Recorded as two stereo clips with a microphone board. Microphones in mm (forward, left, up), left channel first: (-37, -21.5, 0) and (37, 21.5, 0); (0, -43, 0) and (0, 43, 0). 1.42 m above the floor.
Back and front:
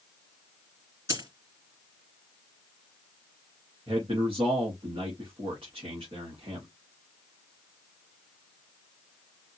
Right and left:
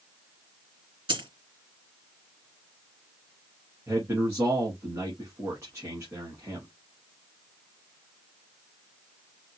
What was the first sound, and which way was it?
A dropped coin, 80° left.